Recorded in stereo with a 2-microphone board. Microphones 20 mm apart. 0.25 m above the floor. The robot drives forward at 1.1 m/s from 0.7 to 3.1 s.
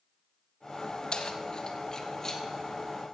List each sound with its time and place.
1.1 s keys jangling: 45° left (ahead or behind), 1.1 m; by 2.4 s 25° left (ahead or behind), 1.9 m